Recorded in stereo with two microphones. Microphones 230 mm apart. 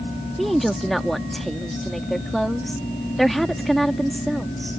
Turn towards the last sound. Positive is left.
turn(degrees=0)  # may be behind; listen again after turning